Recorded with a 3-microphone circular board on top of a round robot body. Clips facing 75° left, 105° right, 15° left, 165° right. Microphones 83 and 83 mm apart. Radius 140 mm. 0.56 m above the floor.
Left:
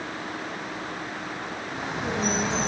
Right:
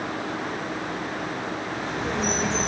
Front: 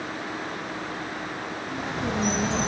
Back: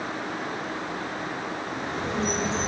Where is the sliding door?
I don't hear a sliding door.